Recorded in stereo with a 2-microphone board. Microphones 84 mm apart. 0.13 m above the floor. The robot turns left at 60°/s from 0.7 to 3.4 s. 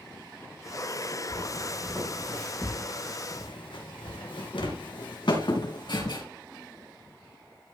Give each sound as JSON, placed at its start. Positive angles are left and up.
{"t": 1.3, "sound": "footsteps", "side_deg": -65, "distance_m": 5.0}